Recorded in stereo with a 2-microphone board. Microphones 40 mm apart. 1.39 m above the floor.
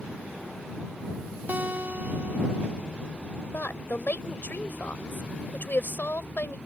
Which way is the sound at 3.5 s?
60° left (ahead or behind).